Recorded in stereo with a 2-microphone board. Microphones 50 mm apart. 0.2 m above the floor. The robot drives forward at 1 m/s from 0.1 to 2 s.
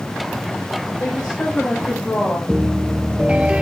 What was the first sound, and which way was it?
A woman speaking, 15° left (ahead or behind).